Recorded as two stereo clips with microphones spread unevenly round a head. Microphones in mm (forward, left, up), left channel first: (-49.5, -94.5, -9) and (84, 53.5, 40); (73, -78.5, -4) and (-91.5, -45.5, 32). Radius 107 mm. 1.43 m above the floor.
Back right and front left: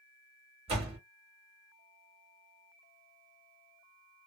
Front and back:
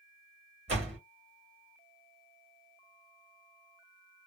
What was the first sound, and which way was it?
A door slam, 110° left.